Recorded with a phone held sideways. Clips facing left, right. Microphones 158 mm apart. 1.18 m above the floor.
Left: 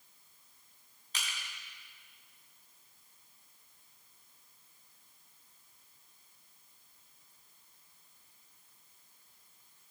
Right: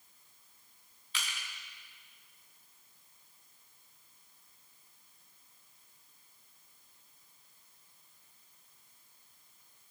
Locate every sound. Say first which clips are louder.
1.1 s crushing: right 1 dB; 45° left (ahead or behind), 1.7 m